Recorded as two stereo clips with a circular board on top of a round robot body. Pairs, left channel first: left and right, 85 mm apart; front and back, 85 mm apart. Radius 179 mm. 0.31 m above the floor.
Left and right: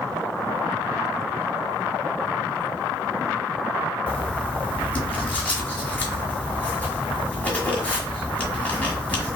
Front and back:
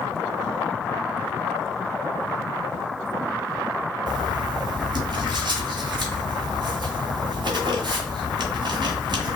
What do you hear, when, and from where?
4.1 s writing: 160° left, 1.9 m